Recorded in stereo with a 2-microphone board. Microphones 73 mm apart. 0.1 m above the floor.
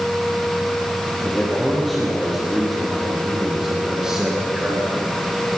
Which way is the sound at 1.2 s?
10° left (ahead or behind).